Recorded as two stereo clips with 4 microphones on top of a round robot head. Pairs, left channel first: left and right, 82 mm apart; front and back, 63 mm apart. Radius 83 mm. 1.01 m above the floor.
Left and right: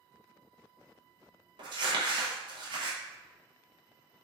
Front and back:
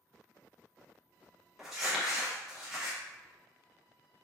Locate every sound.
1.6 s crumpling: 95° right, 0.6 m